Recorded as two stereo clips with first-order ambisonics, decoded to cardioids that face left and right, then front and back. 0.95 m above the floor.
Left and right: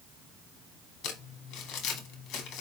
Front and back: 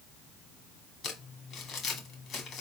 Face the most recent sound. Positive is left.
turn(degrees=50)